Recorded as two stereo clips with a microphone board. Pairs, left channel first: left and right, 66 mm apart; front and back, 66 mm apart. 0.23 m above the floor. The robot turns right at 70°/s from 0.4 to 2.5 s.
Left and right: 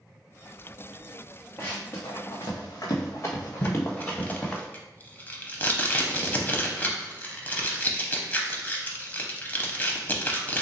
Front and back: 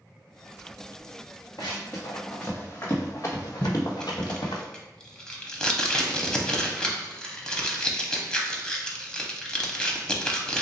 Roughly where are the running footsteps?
Ahead left.